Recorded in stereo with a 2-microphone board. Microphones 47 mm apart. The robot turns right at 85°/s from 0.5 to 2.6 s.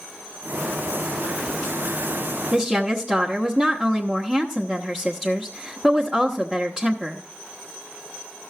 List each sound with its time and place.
2.5 s a woman speaking: 10° right (ahead or behind), 1.0 m